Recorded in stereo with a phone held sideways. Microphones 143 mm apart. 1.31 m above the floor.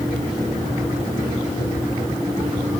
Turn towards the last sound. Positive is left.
No sound to turn to.